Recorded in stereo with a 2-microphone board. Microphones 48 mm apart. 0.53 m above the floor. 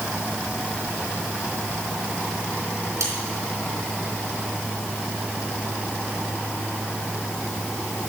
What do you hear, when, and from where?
3.0 s cutlery clinking: 85° right, 3.5 m